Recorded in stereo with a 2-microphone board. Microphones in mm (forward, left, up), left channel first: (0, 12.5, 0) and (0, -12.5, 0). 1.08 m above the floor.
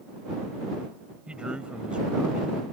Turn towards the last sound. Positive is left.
turn(degrees=-40)  # may be behind; listen again after turning